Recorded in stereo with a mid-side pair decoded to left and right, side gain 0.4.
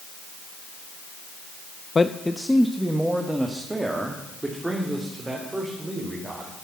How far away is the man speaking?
About 0.5 m.